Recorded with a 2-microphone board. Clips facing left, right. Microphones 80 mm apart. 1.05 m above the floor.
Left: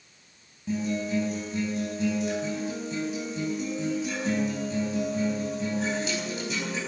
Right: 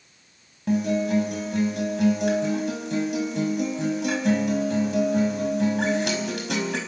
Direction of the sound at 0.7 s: 70° right (ahead or behind).